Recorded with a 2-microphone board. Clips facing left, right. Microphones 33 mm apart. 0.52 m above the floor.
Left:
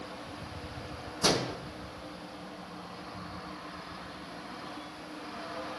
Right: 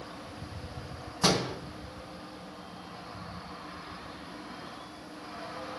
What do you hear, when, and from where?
1.2 s a door slam: 35° right (ahead or behind), 3.5 m